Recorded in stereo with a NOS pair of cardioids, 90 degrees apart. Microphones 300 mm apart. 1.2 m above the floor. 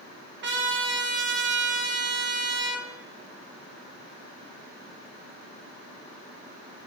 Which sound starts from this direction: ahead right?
A trumpet, at 0.4 s.